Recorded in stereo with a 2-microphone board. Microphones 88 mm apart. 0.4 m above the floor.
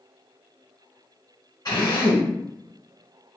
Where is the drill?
45° left (ahead or behind), 1.4 m.